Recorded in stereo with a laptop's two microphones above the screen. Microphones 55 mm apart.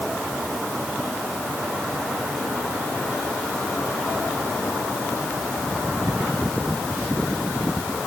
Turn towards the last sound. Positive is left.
No sound to turn to.